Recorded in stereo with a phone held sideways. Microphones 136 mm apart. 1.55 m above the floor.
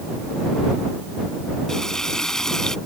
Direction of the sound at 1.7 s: 5° left (ahead or behind).